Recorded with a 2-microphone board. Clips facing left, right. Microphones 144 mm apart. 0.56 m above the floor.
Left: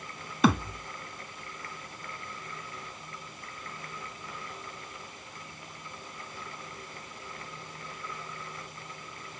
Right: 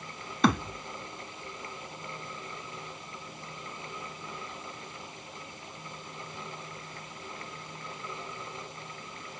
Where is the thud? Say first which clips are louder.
Left 1 dB; centre (ahead or behind), 1.1 m.